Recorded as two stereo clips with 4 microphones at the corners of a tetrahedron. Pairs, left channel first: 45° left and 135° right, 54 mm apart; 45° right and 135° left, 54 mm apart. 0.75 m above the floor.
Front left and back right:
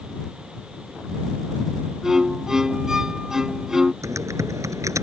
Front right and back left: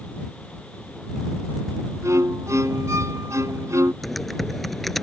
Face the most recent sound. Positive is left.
turn(degrees=-135)